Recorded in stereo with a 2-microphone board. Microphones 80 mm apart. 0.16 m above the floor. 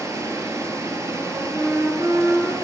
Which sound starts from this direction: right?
Running water, at 0.0 s.